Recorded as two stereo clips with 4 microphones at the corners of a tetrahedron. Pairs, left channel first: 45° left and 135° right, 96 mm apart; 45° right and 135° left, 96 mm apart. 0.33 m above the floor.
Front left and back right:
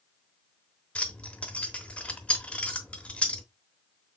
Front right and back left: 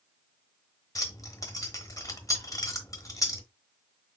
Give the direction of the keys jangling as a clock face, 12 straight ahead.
1 o'clock.